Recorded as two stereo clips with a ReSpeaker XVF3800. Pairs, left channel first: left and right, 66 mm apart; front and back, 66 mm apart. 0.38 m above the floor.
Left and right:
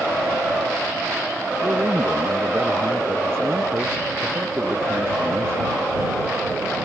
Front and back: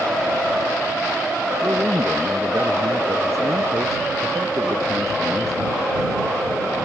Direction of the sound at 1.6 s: 145° right.